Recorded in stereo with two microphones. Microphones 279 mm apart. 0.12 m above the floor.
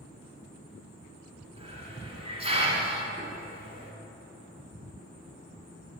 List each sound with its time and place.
1.6 s a hiss: 20° right (ahead or behind), 1.3 m